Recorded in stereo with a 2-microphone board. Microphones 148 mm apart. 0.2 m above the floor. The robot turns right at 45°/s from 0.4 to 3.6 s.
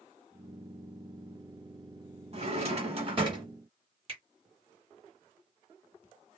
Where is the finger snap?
40° right (ahead or behind), 1.8 m.